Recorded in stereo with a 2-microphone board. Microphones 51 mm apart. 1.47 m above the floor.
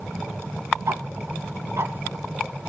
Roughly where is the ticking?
Right.